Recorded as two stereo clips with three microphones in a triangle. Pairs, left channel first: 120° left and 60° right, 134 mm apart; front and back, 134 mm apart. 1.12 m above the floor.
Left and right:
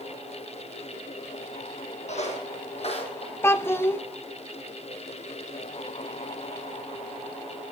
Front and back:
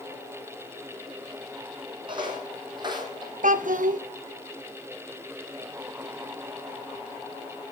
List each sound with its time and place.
2.1 s footsteps: 135° left, 2 m
3.4 s a child speaking: 170° right, 0.5 m